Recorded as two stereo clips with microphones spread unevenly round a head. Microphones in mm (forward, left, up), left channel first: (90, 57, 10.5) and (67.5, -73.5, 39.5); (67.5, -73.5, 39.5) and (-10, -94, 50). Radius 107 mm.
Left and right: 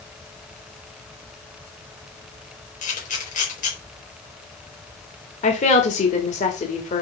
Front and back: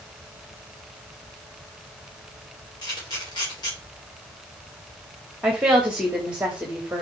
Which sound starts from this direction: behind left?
A woman speaking, at 5.4 s.